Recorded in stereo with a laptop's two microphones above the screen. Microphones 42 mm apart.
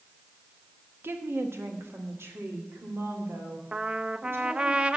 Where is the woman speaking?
60° right (ahead or behind), 1.0 m; by 4.7 s 65° right (ahead or behind), 3.5 m.